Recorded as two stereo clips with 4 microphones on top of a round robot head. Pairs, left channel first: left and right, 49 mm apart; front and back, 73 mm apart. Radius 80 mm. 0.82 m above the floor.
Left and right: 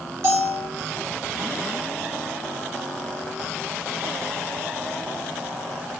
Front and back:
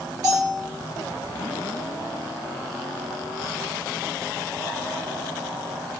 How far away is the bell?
About 1.8 m.